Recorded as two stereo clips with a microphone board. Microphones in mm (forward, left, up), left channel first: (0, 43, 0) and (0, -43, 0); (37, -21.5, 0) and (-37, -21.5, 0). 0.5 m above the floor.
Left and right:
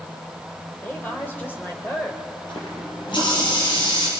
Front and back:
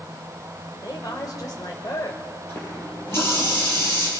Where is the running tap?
60° left, 8 m.